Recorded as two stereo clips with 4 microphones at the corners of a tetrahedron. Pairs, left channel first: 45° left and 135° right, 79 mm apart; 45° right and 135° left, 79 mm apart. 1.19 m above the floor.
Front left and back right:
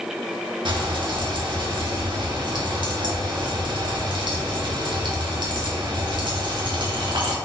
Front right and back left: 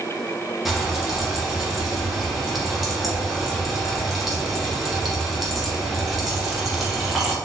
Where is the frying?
140° right, 0.7 m.